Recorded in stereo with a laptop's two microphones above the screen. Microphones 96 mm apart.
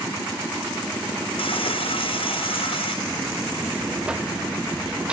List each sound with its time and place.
1.4 s frying: 70° left (ahead or behind)
3.0 s a buzzer: 10° right (ahead or behind)